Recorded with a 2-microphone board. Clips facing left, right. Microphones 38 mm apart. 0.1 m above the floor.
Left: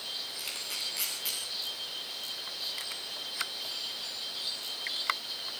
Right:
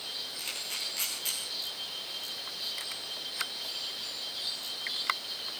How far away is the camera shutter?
About 6 m.